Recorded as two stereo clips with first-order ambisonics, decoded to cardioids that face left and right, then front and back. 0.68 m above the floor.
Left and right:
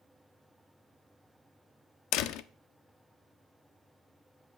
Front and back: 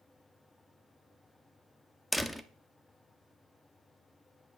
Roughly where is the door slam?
Left.